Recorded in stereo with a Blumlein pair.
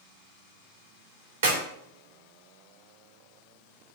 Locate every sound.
1.4 s a clap: 60° right, 2.5 m